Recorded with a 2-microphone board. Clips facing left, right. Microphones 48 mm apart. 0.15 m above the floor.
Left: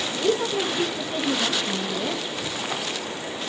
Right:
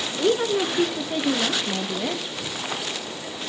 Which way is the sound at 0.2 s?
45° right (ahead or behind).